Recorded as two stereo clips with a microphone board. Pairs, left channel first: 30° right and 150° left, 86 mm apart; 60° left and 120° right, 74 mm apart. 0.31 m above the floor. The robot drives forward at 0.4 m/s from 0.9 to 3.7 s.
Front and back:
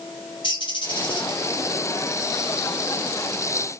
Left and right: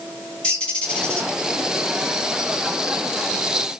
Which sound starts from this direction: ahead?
A bird, at 0.4 s.